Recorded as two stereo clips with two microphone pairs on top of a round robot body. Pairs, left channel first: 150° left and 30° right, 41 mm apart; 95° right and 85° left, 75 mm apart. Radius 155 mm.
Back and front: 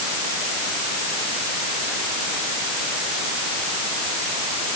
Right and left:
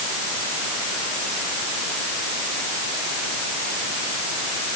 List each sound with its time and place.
Only background noise.